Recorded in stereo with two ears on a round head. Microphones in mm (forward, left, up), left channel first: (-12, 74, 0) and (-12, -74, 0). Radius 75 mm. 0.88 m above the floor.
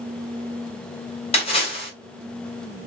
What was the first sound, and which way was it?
A splash, 40° left (ahead or behind).